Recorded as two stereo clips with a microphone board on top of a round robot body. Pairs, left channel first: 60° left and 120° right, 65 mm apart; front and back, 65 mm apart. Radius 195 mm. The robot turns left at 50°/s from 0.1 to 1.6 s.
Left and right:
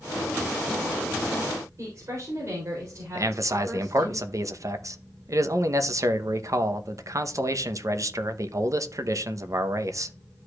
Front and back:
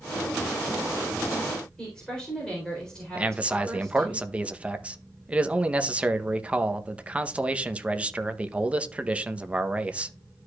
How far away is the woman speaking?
About 3.5 m.